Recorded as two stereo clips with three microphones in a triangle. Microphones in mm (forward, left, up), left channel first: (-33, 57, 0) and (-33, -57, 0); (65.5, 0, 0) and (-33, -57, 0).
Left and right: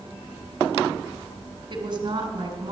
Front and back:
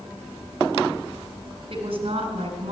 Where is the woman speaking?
125° right, 2 m.